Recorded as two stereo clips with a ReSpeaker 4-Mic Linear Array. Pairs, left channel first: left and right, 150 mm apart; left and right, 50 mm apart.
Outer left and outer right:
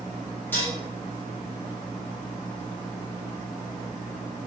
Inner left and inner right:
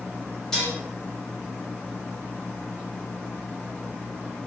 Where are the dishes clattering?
15° left (ahead or behind), 1.0 m.